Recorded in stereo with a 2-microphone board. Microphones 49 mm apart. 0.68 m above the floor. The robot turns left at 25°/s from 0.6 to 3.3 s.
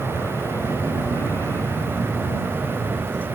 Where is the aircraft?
90° left; by 3.4 s 25° left.